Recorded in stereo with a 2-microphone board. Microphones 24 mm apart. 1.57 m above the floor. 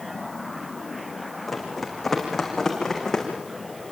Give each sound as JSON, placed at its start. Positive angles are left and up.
{"t": 1.5, "sound": "running footsteps", "side_deg": -5, "distance_m": 6.5}